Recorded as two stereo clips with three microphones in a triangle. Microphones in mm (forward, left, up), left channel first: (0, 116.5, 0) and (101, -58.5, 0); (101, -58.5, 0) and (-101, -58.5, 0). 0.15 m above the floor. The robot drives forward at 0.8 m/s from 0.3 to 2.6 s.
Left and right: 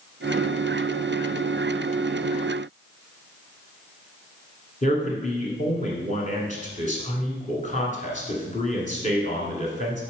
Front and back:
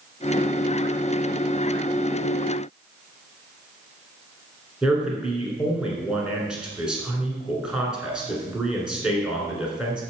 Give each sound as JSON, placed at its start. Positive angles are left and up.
{"t": 4.8, "sound": "a man speaking", "azimuth_deg": 95, "distance_m": 1.4}